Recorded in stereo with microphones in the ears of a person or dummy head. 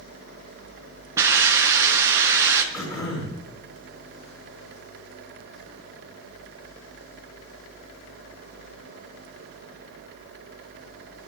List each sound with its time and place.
1.2 s a hiss: 20° right (ahead or behind), 3 m
2.7 s throat clearing: 25° left (ahead or behind), 6.5 m